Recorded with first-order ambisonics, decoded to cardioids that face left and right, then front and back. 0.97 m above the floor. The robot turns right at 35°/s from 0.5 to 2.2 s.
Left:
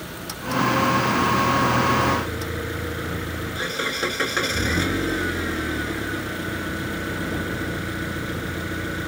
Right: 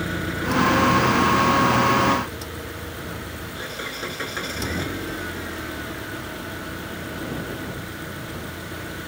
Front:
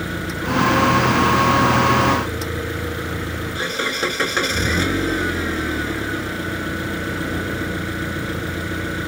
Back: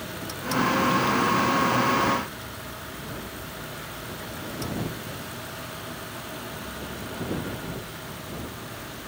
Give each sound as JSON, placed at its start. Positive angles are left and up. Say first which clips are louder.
{"t": 0.0, "sound": "an engine running", "louder": "right 6 dB, front 8 dB", "azimuth_deg": -40}